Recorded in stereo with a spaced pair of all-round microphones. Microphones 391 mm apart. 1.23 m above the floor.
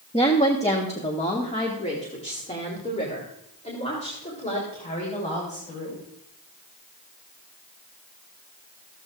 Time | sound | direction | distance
0.1 | a woman speaking | 15° left (ahead or behind) | 1.2 m